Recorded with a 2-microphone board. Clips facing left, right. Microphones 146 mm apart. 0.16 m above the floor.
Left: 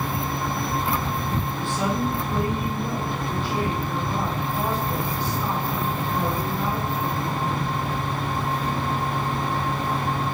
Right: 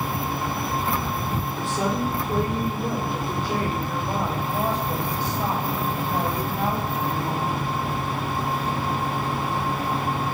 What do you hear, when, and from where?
1.6 s a woman speaking: 40° right (ahead or behind), 6 m; by 7.7 s 50° right (ahead or behind), 9 m